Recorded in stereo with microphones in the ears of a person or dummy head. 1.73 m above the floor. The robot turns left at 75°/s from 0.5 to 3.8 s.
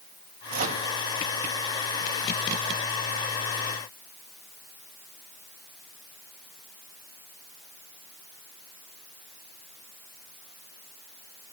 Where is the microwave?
50° right (ahead or behind), 2.5 m; by 0.9 s 25° right (ahead or behind), 2.5 m.